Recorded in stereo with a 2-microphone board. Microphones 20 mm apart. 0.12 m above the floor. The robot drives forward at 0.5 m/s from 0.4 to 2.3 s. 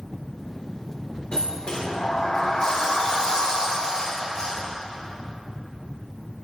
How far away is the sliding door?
About 5 m.